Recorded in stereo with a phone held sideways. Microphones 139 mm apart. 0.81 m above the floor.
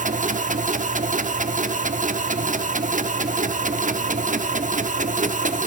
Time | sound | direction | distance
0.0 | a machine running | 70° right (ahead or behind) | 0.9 m